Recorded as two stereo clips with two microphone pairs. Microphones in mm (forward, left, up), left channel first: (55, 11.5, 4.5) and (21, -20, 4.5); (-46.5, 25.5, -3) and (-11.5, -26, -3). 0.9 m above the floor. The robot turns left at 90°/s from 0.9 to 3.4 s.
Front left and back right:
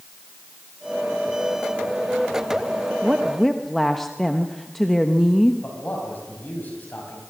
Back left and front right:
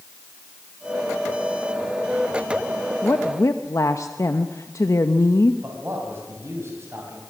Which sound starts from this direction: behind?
A woman speaking, at 3.0 s.